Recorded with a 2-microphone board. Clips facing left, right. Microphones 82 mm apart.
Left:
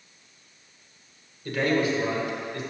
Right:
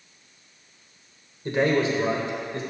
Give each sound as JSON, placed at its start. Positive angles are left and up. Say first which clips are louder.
{"t": 1.4, "sound": "a man speaking", "louder": "right 2 dB", "side_deg": -25, "distance_m": 2.5}